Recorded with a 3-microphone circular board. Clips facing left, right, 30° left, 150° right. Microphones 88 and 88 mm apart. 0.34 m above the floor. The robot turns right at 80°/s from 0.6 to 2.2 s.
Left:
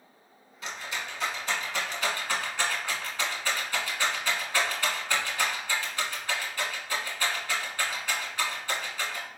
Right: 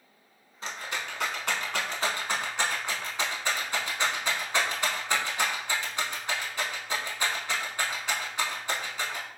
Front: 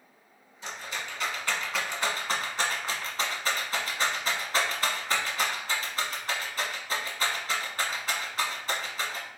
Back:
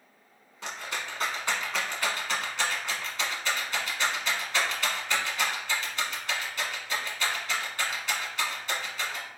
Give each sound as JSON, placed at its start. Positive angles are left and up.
{"t": 0.6, "sound": "a rattle", "azimuth_deg": -150, "distance_m": 1.0}